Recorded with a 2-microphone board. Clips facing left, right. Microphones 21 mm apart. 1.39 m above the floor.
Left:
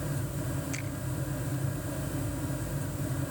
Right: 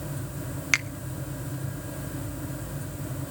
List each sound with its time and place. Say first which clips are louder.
0.7 s a finger snap: right 14 dB; 70° right (ahead or behind), 0.8 m